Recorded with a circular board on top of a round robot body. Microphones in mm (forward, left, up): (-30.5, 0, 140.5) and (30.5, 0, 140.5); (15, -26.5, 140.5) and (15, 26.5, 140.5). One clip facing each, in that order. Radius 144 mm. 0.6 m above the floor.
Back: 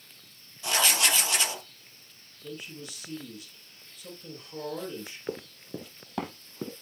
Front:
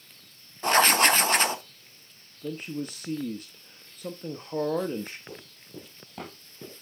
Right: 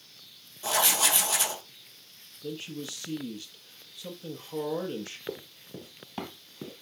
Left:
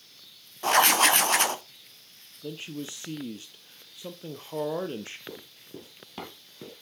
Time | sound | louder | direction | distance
0.6 | writing | front 7 dB, left 7 dB | 50° left | 0.8 m
2.4 | a man speaking | front 8 dB, even | 30° left | 0.9 m
5.3 | running footsteps | back 8 dB, right 4 dB | 170° right | 0.7 m